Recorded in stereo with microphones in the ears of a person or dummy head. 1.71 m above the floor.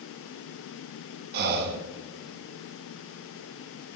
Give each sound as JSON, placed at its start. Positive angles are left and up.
{"t": 1.3, "sound": "breathing", "side_deg": -55, "distance_m": 0.5}